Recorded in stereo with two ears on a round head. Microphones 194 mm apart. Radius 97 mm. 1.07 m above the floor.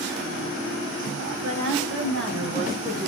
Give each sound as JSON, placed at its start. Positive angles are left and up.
{"t": 1.4, "sound": "a woman speaking", "side_deg": -65, "distance_m": 1.3}